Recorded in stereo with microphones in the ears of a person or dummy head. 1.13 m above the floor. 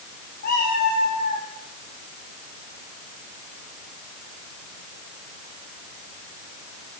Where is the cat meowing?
55° left (ahead or behind), 6 m.